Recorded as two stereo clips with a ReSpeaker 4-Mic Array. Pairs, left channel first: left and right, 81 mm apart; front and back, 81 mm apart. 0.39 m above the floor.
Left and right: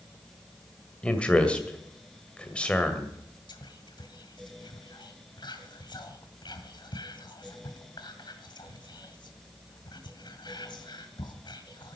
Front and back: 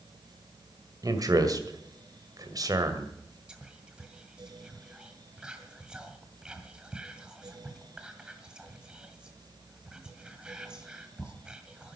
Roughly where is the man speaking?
Behind.